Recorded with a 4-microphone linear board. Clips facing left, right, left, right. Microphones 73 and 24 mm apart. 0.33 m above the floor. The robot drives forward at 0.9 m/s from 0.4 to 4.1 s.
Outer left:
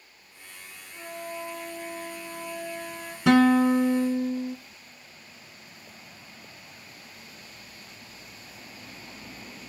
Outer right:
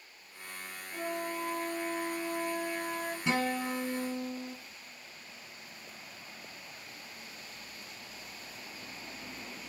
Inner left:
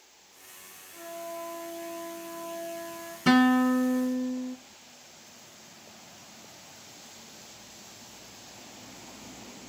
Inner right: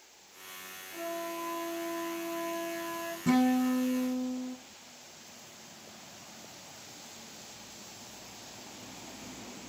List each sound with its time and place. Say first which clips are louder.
0.9 s a flute: outer right 1 dB, inner right 2 dB; 15° right (ahead or behind), 4.5 m; by 3.2 s 25° right (ahead or behind), 3 m
3.3 s a guitar: outer left 14 dB, inner left 5 dB; 80° left, 0.8 m; by 4.6 s 50° left (ahead or behind), 1.0 m